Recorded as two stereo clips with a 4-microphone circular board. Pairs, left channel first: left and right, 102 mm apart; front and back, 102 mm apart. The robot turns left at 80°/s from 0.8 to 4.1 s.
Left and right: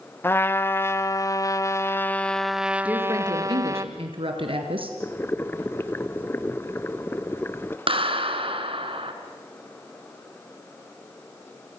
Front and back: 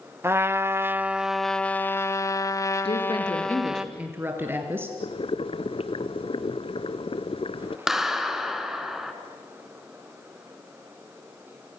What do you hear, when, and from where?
0.2 s a trumpet: 135° left, 0.9 m; by 3.9 s 110° right, 0.9 m
2.9 s a woman speaking: 10° right, 3.5 m; by 4.9 s 110° right, 3.5 m
5.0 s boiling: 20° left, 0.8 m
7.9 s a clap: 95° right, 1.9 m